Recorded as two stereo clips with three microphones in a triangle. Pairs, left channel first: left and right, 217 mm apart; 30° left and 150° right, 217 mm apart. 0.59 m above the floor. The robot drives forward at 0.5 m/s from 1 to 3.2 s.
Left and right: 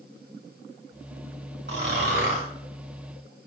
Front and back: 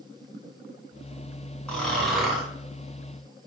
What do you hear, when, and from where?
1.7 s snoring: 55° right, 2.5 m; by 2.5 s 60° right, 2.5 m